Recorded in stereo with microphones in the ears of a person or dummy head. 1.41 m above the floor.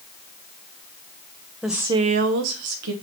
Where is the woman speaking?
Centre (ahead or behind), 0.6 m; by 2.9 s 70° right (ahead or behind), 0.8 m.